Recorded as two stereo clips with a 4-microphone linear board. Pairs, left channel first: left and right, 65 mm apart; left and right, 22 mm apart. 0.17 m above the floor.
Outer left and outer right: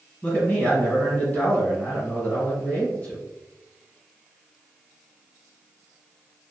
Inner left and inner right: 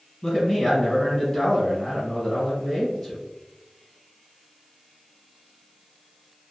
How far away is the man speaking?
About 1.8 m.